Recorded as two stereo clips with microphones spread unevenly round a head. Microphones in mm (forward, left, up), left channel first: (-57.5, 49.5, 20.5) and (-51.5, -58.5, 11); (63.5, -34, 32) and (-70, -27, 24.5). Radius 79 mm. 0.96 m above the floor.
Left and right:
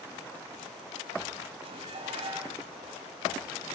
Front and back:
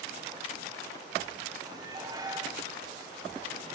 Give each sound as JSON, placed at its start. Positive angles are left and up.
{"t": 1.6, "sound": "dishes clattering", "azimuth_deg": -120, "distance_m": 4.0}